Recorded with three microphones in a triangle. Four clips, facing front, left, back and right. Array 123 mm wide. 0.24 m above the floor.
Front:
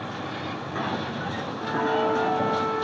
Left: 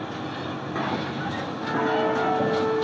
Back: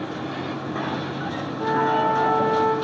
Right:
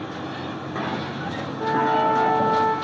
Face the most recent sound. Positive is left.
turn(degrees=-130)